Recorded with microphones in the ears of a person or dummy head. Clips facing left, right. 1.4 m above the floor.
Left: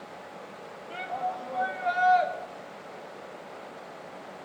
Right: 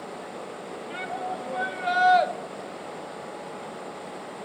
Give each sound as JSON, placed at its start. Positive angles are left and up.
{"t": 0.9, "sound": "a shout", "side_deg": -25, "distance_m": 1.1}